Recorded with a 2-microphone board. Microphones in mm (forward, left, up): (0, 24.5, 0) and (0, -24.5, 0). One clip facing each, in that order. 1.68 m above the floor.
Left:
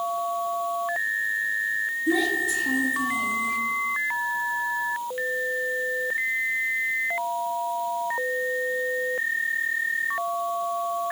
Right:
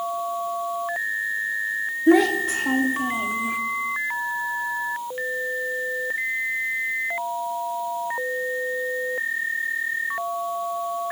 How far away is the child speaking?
About 2 m.